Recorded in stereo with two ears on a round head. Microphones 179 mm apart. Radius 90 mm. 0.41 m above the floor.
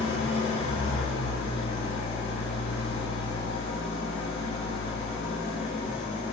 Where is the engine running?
30° left (ahead or behind), 1.0 m.